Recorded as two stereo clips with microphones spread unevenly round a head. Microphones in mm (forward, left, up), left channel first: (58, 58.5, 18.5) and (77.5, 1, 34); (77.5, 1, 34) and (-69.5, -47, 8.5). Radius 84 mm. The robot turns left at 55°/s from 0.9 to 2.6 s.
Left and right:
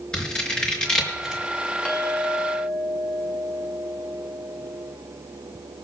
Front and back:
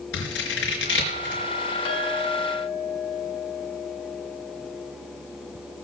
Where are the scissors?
30° left, 4 m; by 1.4 s straight ahead, 4 m.